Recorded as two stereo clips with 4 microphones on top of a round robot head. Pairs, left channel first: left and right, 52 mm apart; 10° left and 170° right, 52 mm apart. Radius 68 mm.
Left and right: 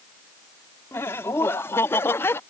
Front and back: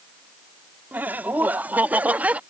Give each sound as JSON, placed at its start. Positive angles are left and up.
{"t": 0.9, "sound": "laughter", "azimuth_deg": 135}